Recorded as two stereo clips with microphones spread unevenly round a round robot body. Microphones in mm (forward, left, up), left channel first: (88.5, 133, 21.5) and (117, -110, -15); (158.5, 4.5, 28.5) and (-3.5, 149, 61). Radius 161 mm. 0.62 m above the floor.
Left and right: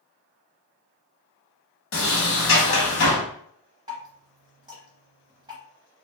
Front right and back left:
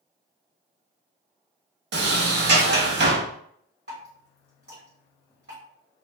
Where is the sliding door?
120° left, 0.7 m.